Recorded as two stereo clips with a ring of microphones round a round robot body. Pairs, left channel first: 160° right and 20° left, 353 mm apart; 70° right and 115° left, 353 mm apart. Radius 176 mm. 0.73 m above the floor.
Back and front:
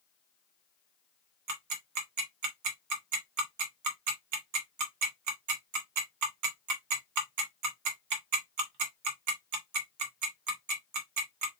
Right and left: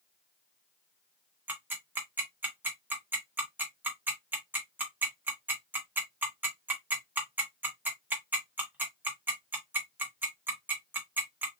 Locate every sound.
1.5 s ticking: 30° left, 0.9 m